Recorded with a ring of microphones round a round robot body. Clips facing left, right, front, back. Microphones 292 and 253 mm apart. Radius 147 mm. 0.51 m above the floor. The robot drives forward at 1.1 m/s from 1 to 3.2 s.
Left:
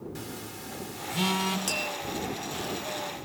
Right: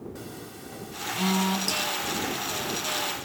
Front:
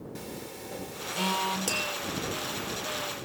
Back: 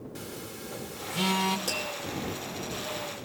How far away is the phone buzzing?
About 1.4 m.